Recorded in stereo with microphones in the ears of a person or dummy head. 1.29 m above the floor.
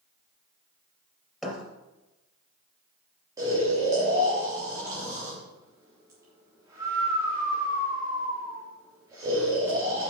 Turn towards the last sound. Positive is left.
turn(degrees=-20)  # may be behind; listen again after turning